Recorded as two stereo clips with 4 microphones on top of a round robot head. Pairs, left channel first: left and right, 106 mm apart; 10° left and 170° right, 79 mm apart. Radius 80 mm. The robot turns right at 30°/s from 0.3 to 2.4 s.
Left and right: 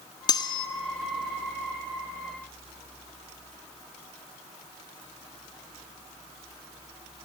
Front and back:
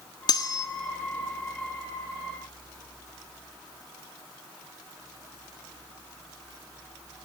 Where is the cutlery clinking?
40° left, 1.7 m; by 0.7 s 50° left, 1.7 m.